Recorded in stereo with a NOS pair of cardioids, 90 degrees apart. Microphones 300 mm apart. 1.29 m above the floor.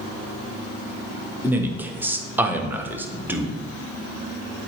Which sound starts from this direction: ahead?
A man speaking, at 1.4 s.